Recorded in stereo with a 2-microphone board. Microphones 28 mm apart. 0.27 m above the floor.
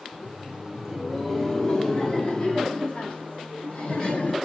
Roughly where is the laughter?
Right.